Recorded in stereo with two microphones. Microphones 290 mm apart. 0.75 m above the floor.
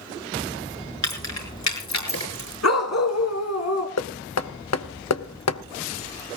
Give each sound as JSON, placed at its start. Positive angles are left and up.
{"t": 1.0, "sound": "keys jangling", "side_deg": 70, "distance_m": 5.5}
{"t": 2.6, "sound": "a dog barking", "side_deg": 65, "distance_m": 2.5}
{"t": 4.0, "sound": "knocking", "side_deg": 60, "distance_m": 0.9}